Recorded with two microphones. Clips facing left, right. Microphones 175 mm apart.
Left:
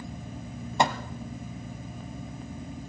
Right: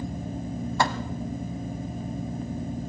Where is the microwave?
20° left (ahead or behind), 0.9 m.